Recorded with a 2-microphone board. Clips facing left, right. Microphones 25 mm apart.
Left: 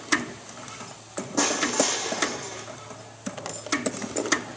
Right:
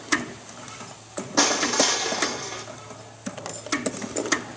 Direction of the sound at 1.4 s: 55° right (ahead or behind).